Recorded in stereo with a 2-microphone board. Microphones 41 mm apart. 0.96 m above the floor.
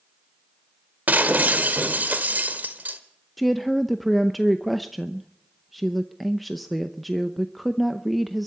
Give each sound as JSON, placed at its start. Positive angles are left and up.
{"t": 1.1, "sound": "breaking glass", "side_deg": -45, "distance_m": 1.5}
{"t": 3.4, "sound": "a woman speaking", "side_deg": 0, "distance_m": 0.6}